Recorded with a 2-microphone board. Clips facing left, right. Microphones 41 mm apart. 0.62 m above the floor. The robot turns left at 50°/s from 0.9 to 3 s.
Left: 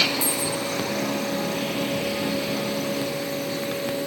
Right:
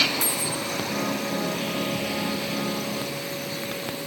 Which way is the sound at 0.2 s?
65° right (ahead or behind).